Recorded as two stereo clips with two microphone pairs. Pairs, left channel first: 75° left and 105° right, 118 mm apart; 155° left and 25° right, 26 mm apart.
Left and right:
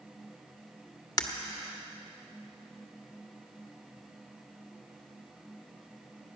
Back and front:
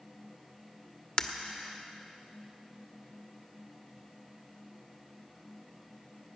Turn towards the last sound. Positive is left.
turn(degrees=115)